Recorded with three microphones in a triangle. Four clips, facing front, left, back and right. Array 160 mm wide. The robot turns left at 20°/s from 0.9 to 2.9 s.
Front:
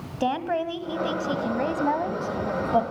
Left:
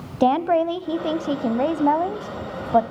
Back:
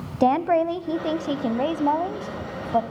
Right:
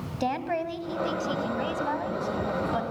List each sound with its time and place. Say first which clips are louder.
0.2 s a woman speaking: left 11 dB, back 6 dB; 130° left, 1.6 m; by 2.8 s 90° left, 1.6 m